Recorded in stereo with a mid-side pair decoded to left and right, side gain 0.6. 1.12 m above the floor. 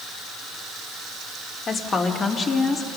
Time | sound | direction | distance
1.7 | a woman speaking | 35° left | 3 m